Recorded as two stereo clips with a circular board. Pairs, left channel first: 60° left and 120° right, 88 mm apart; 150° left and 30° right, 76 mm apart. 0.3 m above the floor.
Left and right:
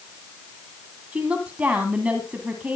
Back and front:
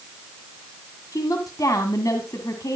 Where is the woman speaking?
170° left, 2 m.